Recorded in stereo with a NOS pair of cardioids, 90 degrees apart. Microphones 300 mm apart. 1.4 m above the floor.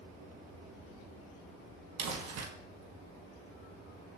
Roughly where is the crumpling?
Ahead right.